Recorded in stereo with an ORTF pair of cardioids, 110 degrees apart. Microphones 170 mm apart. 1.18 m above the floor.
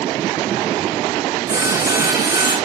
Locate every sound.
1.5 s sawing: 20° right, 5.5 m